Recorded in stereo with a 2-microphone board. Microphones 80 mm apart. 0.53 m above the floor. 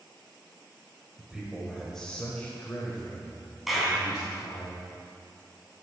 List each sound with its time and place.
1.2 s a man speaking: 15° right (ahead or behind), 2 m; by 4.7 s 65° left (ahead or behind), 3 m
3.7 s a clap: 5° right (ahead or behind), 3 m